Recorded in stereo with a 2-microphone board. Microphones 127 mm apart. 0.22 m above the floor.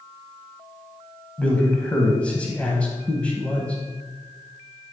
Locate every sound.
1.4 s a man speaking: 10° left (ahead or behind), 1.0 m